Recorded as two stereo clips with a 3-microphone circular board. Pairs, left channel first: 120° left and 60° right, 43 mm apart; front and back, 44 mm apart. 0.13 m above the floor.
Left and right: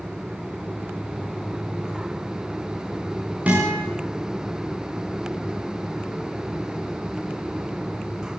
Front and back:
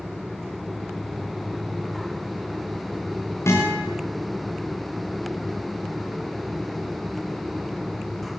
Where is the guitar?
Straight ahead, 9.5 m.